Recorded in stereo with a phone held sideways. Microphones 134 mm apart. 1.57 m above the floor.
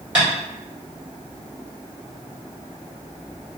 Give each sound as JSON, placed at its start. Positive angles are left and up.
{"t": 0.1, "sound": "tapping", "side_deg": -10, "distance_m": 1.4}